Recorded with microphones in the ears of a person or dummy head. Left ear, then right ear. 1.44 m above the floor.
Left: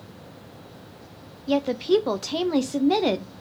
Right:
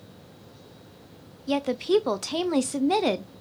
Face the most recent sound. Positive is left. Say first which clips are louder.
# left 2 dB
turn(degrees=-10)  # may be behind; listen again after turning